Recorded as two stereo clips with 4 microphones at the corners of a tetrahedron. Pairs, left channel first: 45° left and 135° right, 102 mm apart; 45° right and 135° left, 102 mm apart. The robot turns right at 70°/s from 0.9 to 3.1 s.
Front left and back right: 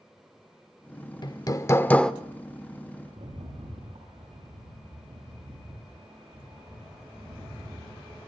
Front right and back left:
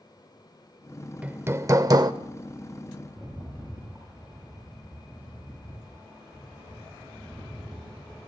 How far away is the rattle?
About 10 m.